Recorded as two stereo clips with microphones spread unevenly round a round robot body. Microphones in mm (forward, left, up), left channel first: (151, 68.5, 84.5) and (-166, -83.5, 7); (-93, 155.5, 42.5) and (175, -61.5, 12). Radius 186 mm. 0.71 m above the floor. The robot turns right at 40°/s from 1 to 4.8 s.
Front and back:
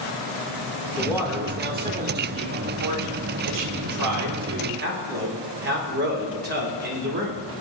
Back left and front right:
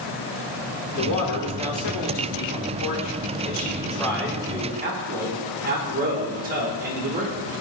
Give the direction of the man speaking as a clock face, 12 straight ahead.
8 o'clock.